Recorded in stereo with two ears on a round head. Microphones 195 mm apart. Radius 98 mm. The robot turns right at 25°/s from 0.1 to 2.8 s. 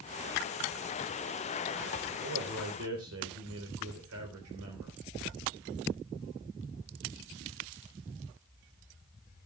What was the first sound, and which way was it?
A man speaking, 60° right (ahead or behind).